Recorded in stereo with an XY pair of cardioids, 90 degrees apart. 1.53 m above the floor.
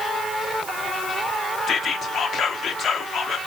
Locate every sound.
1.7 s whispering: 65° left, 0.7 m